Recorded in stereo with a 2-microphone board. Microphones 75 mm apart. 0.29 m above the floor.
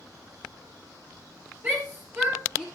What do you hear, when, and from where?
1.6 s a shout: 25° right (ahead or behind), 6.5 m